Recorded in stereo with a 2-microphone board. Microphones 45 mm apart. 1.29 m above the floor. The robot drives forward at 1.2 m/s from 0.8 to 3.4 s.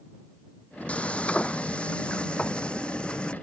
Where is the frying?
30° left (ahead or behind); by 3.3 s 20° left (ahead or behind).